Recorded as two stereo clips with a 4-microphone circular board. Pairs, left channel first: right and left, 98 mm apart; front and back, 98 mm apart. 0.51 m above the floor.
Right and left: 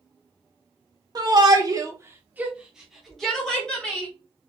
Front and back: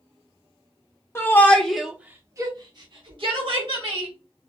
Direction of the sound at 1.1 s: 55° left.